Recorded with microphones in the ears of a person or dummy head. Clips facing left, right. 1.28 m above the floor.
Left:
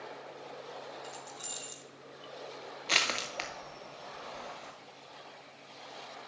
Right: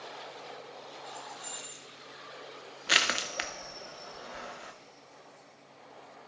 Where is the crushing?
10° right (ahead or behind), 0.7 m.